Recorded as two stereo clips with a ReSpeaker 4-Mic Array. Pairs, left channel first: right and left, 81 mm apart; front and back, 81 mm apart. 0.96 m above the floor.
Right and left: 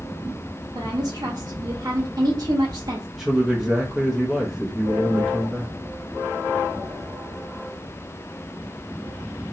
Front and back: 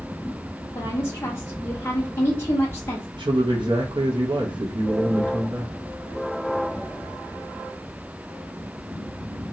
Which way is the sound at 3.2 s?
175° left.